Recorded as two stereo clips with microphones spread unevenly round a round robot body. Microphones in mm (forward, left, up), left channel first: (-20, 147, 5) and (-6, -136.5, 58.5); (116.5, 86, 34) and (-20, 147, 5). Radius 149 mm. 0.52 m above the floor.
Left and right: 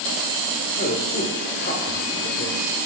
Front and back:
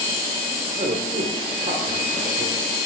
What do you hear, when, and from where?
0.8 s a man speaking: 140° left, 1.4 m